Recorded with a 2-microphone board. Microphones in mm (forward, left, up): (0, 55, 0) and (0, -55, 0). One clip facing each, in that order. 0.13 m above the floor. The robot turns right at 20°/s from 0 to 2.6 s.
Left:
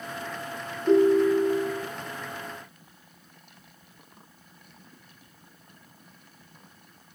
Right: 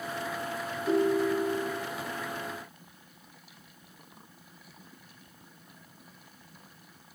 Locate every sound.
0.9 s a ringtone: 20° left (ahead or behind), 2.0 m; by 1.9 s centre (ahead or behind), 2.0 m